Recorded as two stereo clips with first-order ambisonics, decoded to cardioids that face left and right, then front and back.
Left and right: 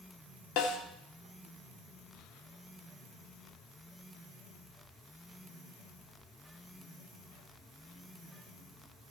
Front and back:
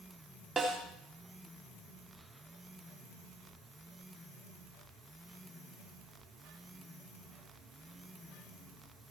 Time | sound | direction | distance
0.6 | a snare drum | 100° left | 1.9 m